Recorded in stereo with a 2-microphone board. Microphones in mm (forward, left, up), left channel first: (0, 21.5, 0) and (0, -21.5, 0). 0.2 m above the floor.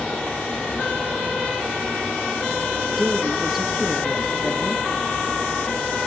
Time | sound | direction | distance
3.0 | a woman speaking | 5° right (ahead or behind) | 2.5 m